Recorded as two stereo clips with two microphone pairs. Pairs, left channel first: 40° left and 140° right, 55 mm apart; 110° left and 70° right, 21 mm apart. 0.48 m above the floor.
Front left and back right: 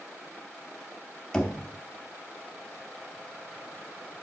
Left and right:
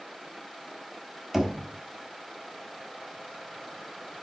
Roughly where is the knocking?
Ahead.